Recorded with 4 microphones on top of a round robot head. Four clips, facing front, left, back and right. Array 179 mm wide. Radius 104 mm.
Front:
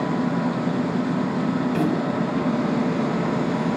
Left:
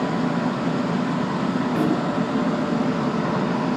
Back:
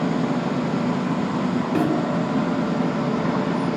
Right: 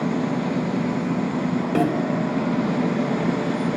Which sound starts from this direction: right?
A snare drum, at 1.8 s.